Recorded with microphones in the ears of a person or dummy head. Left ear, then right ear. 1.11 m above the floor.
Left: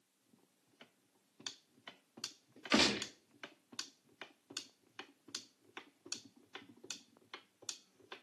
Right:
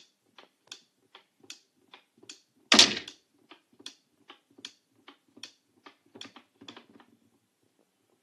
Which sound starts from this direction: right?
A gunshot, at 2.7 s.